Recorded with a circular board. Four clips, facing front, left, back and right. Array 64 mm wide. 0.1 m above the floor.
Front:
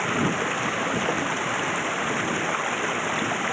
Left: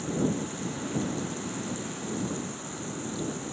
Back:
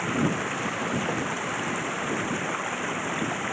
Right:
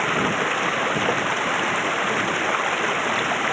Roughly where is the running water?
Right.